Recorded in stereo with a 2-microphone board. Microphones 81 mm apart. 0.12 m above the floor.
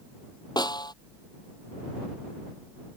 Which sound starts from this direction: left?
A snare drum, at 0.6 s.